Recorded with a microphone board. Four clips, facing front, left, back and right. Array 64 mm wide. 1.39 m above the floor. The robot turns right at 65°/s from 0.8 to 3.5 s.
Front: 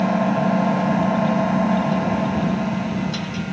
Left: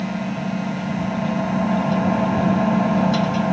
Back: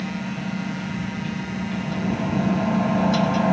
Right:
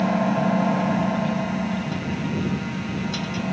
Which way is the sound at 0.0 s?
25° right.